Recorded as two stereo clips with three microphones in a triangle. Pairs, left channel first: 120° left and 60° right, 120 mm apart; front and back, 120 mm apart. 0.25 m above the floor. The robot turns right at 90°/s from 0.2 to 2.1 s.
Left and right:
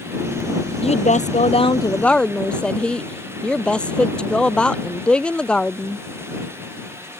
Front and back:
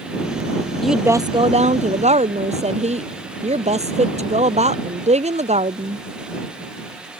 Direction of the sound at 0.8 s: 85° left.